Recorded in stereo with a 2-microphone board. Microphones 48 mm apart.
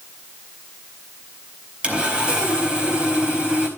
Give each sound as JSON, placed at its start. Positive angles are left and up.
{"t": 1.8, "sound": "sawing", "side_deg": -20, "distance_m": 4.0}